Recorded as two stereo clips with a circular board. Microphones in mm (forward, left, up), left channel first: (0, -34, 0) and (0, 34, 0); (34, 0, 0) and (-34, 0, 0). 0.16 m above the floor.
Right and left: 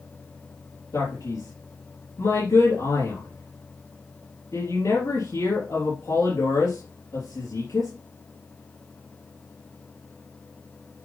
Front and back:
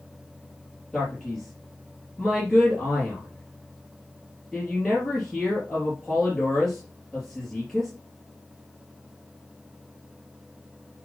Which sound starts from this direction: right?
A man speaking, at 0.9 s.